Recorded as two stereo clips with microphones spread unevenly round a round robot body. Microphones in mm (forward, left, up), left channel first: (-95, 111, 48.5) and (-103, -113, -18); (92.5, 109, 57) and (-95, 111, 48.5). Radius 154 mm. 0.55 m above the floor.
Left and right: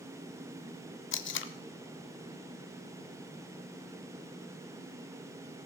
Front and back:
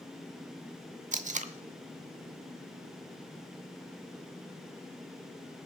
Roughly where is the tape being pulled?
Behind left.